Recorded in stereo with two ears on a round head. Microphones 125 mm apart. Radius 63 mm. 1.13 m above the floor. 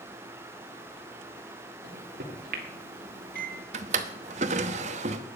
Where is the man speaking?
I don't hear a man speaking.